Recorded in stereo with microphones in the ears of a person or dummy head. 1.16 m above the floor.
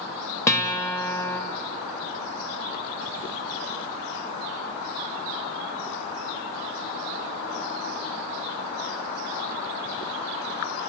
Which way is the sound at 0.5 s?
15° left (ahead or behind).